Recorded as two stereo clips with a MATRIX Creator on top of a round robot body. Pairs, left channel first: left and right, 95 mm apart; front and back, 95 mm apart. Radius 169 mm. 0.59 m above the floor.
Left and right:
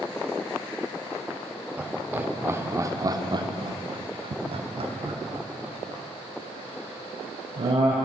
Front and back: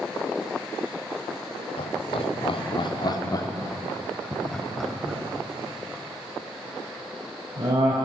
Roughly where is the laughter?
Ahead.